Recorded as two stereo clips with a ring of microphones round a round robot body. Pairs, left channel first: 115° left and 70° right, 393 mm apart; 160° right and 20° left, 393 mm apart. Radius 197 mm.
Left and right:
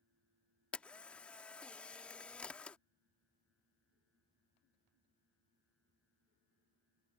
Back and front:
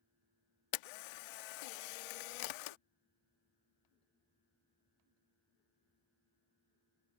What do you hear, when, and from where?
0.7 s a camera shutter: 160° right